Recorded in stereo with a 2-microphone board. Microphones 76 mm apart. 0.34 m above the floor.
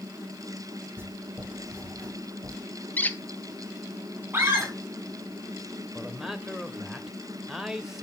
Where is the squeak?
20° left (ahead or behind), 0.7 m.